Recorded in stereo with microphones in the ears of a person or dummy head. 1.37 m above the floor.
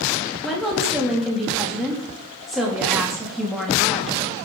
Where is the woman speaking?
Centre (ahead or behind), 2.5 m.